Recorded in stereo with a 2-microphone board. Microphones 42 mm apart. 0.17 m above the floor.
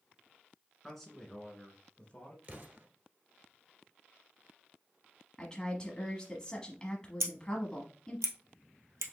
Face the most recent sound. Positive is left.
turn(degrees=-80)